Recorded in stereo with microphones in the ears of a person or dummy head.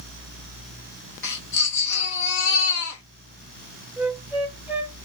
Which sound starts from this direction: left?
A baby crying, at 1.2 s.